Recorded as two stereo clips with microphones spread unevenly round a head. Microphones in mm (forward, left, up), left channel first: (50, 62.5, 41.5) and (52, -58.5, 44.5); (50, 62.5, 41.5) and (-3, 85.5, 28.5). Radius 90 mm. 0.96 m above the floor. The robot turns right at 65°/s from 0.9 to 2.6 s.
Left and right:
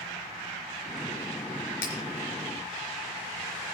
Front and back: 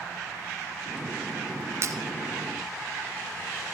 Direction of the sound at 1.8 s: 115° left.